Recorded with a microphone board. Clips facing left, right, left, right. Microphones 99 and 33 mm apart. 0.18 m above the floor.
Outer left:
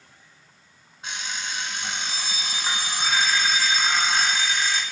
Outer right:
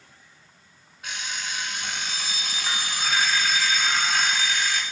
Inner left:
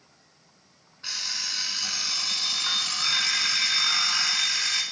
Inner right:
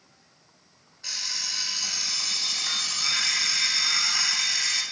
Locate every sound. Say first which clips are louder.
1.0 s an alarm clock: outer left 1 dB, inner left 1 dB; 30° left (ahead or behind), 1.2 m